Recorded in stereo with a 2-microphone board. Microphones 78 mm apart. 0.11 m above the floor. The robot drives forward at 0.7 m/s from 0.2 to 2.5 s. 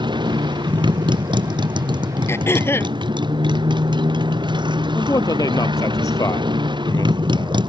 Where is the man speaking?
50° left (ahead or behind).